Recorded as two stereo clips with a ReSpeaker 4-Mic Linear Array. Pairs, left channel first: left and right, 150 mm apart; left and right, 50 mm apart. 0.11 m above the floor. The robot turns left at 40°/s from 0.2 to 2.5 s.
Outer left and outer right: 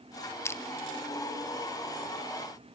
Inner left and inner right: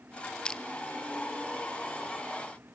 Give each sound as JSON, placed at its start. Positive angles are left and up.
{"t": 0.5, "sound": "crushing", "side_deg": 20, "distance_m": 1.0}